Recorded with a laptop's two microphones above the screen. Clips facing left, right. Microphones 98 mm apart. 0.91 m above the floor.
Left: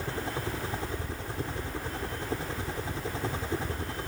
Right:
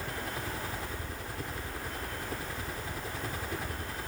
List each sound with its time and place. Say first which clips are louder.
0.0 s a helicopter: left 4 dB; 25° left (ahead or behind)